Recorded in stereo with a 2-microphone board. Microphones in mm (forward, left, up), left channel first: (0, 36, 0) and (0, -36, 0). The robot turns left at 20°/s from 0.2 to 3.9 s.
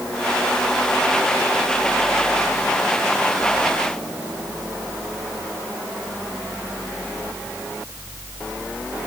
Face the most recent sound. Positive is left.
No sound to turn to.